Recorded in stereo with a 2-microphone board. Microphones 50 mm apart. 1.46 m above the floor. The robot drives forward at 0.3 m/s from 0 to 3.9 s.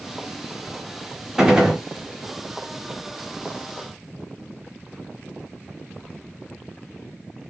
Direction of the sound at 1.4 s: 10° right (ahead or behind).